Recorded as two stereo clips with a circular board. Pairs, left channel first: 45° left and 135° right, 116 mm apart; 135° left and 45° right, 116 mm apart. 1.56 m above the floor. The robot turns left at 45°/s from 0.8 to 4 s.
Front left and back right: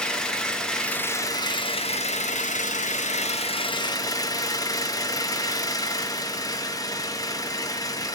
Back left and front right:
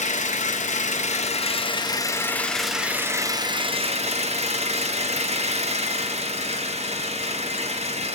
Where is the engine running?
130° left, 1.0 m; by 8.2 s 15° right, 1.0 m.